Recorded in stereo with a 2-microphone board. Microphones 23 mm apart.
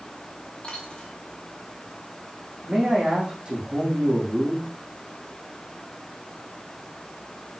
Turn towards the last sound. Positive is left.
turn(degrees=-30)  # may be behind; listen again after turning